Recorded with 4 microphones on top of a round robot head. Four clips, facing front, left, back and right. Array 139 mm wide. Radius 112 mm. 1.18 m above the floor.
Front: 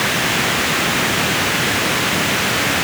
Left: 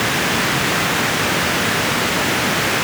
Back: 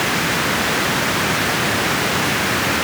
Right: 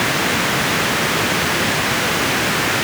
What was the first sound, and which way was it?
Only background noise.